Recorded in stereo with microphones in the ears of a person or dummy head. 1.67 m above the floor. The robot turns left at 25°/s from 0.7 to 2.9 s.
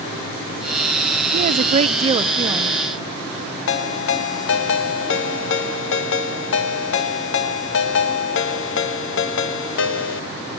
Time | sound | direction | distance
1.3 | a woman speaking | 125° right | 0.6 m
3.7 | a ringtone | 60° left (ahead or behind) | 1.4 m